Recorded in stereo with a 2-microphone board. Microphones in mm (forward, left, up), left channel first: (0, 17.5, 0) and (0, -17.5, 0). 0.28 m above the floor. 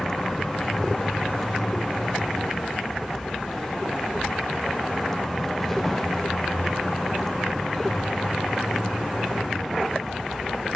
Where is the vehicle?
10° left (ahead or behind); by 10.8 s 5° left (ahead or behind).